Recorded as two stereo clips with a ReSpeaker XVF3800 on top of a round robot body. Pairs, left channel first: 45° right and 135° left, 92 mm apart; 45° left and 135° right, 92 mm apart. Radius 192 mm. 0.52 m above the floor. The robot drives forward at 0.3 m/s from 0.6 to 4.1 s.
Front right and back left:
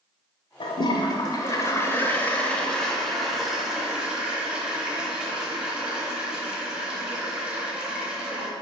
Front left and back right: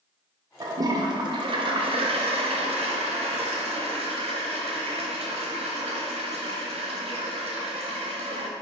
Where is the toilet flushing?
80° right, 0.7 m; by 8.5 s 145° right, 1.2 m.